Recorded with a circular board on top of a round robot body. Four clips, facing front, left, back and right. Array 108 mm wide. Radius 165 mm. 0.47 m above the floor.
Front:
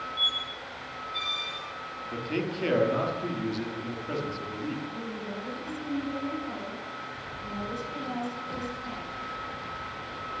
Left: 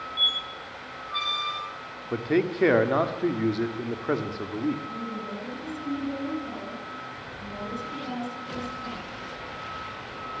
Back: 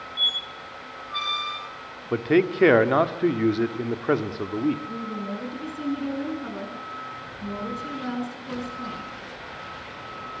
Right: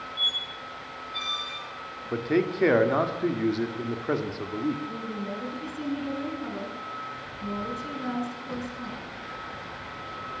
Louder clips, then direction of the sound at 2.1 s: Even, back 11 dB; straight behind.